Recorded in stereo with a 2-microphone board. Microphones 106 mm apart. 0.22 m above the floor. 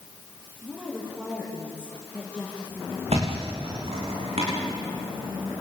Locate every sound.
0.6 s a woman speaking: 20° right (ahead or behind), 9.5 m; by 3.0 s 10° right (ahead or behind), 9.5 m
3.1 s a thud: 75° right (ahead or behind), 9.5 m